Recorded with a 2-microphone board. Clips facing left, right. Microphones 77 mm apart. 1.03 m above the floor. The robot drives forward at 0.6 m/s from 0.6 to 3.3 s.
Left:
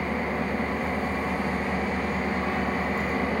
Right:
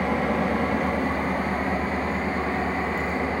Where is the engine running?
65° right (ahead or behind), 1.1 m; by 3.4 s 25° right (ahead or behind), 2.5 m.